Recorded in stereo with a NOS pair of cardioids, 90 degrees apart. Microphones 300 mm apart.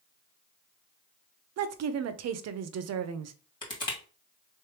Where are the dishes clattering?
I don't hear dishes clattering.